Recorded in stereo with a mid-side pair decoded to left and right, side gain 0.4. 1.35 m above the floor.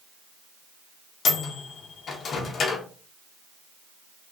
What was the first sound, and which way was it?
A microwave, 60° left.